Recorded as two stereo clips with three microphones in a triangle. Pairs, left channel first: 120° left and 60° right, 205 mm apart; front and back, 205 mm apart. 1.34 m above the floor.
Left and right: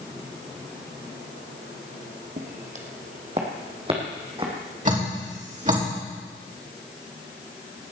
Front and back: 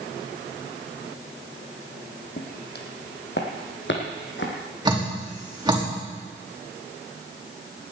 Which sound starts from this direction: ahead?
Footsteps, at 2.4 s.